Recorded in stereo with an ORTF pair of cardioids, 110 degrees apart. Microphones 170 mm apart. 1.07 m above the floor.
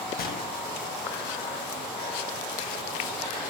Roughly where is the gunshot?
Ahead left.